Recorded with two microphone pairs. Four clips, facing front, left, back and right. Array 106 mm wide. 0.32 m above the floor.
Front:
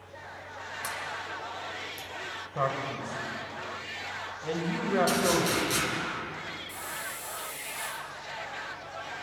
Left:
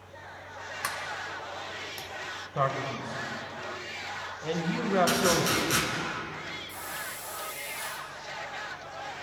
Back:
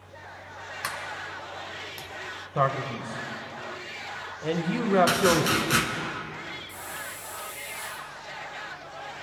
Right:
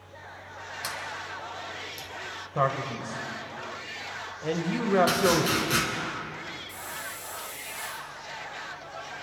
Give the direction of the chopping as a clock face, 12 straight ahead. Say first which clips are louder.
Right 2 dB, back 4 dB; 6 o'clock.